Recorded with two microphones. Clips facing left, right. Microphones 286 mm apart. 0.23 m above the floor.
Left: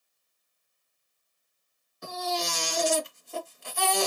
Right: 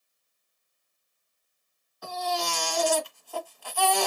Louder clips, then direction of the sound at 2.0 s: Right 1 dB; 25° left (ahead or behind).